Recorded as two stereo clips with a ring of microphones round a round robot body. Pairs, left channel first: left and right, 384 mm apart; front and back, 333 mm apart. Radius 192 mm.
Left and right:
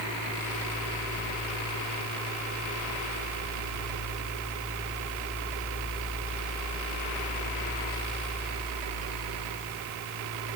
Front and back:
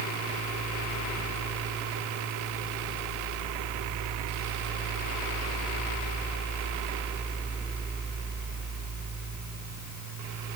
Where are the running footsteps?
No running footsteps in this recording.